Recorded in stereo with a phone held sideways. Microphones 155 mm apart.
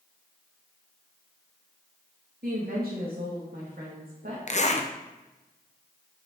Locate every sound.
2.4 s a woman speaking: 75° right (ahead or behind), 1.8 m
4.5 s a zipper: 50° left (ahead or behind), 0.8 m